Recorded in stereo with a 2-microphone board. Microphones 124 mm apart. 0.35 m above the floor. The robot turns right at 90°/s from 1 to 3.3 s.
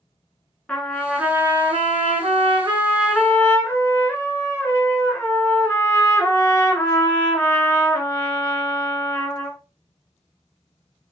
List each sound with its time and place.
0.7 s a trumpet: 175° left, 0.7 m; by 9.6 s 20° left, 0.7 m